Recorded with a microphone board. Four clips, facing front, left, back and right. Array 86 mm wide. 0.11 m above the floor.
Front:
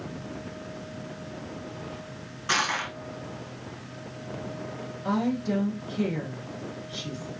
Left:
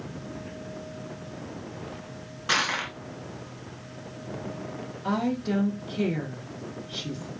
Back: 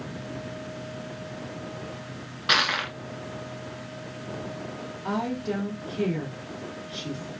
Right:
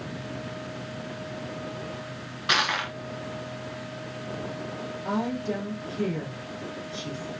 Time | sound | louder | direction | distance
2.5 | crushing | right 2 dB, back 2 dB | 155° right | 0.7 m
5.0 | a woman speaking | left 2 dB, front 2 dB | 105° left | 1.2 m